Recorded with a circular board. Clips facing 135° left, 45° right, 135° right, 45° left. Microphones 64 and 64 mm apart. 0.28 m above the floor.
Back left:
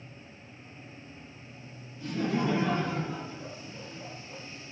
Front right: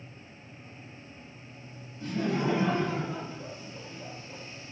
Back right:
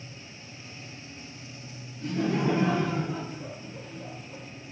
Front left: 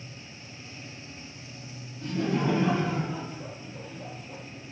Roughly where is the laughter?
Right.